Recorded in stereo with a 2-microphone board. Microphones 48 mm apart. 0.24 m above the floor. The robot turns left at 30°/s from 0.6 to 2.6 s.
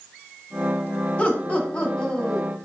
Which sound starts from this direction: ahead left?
Laughter, at 1.2 s.